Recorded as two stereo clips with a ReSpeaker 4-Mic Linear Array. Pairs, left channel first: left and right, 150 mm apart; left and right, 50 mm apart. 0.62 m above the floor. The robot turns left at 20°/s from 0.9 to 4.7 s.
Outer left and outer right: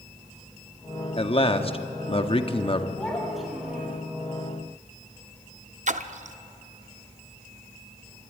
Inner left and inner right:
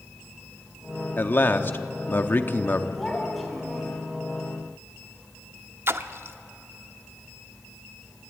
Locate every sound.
1.2 s a man speaking: 105° left, 1.0 m; by 2.9 s 70° left, 1.0 m
3.0 s a child speaking: 10° left (ahead or behind), 4 m; by 4.0 s 10° right (ahead or behind), 4 m
5.9 s a splash: 55° right (ahead or behind), 0.7 m